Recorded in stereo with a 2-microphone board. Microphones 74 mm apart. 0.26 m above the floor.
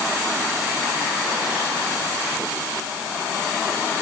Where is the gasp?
No gasp in this recording.